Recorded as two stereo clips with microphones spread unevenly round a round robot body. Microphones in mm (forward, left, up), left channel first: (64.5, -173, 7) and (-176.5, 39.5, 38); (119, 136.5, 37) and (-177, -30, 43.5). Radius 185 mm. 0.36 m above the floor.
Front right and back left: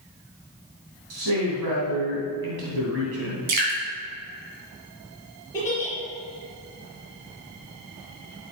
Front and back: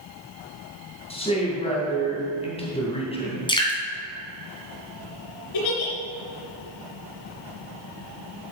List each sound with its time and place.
1.1 s a man speaking: 100° left, 3 m
3.5 s dripping: 105° left, 3 m
5.5 s a giggle: 40° left, 3.5 m